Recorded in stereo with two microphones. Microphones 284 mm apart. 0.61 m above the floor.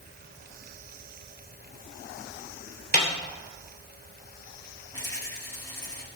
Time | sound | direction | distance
2.9 | a snare drum | 35° left (ahead or behind) | 2.5 m
4.9 | a rattle | 15° left (ahead or behind) | 5.5 m